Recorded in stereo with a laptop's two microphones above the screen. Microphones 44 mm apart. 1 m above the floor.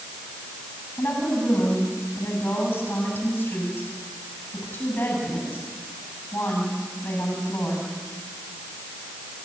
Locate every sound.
1.0 s a woman speaking: 60° left (ahead or behind), 8 m